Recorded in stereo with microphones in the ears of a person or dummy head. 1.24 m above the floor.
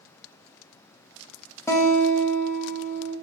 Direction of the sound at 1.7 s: 15° left (ahead or behind).